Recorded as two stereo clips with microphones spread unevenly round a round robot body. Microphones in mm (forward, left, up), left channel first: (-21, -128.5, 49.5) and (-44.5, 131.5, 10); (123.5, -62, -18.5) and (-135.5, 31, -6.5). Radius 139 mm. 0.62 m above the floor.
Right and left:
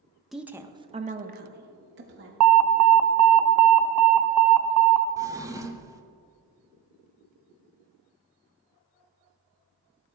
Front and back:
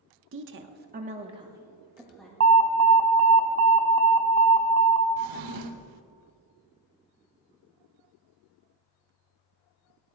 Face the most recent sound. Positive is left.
turn(degrees=175)